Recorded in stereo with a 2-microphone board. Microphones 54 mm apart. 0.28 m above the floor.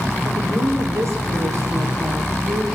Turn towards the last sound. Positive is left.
turn(degrees=-60)  # may be behind; listen again after turning